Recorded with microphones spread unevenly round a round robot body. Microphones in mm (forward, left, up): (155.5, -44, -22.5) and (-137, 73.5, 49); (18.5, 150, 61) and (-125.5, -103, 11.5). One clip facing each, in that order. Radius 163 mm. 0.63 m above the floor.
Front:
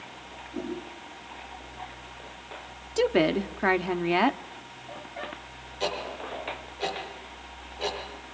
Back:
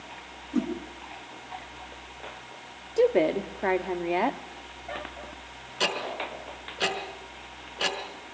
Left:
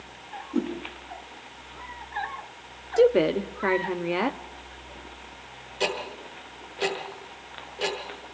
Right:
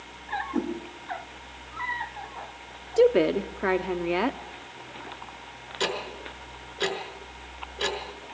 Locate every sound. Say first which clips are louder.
0.5 s a whoosh: back 7 dB, left 1 dB; 145° left, 8 m
3.0 s a woman speaking: back 1 dB, even; 40° right, 1.1 m
5.8 s ticking: even, left 1 dB; 175° left, 5.5 m